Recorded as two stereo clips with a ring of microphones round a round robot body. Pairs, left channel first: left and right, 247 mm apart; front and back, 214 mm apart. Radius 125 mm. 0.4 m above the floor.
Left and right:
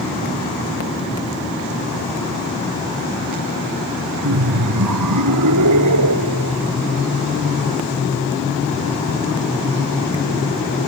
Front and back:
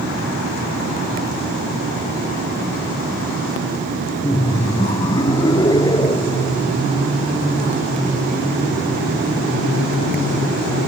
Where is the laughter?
75° right.